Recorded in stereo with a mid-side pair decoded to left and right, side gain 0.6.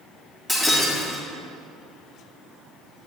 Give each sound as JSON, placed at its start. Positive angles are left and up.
{"t": 0.5, "sound": "breaking glass", "azimuth_deg": -5, "distance_m": 3.0}